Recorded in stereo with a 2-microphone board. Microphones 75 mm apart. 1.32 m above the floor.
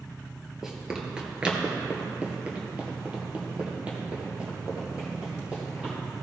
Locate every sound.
0.6 s running footsteps: 10° right (ahead or behind), 1.6 m; by 5.9 s 15° right (ahead or behind), 4 m